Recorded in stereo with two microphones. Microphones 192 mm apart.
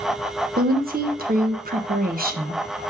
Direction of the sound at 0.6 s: 50° right (ahead or behind).